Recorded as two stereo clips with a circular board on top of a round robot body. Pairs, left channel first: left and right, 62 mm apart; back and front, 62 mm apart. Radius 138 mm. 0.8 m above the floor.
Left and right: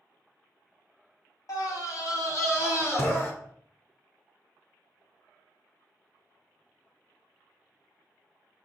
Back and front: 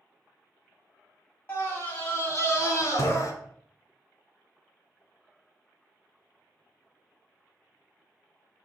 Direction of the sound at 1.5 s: 125° left.